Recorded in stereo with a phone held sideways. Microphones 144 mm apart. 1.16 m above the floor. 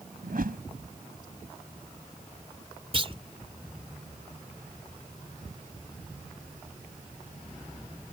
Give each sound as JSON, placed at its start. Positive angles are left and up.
{"t": 0.2, "sound": "a whoosh", "side_deg": -80}
{"t": 2.9, "sound": "a clunk", "side_deg": -40}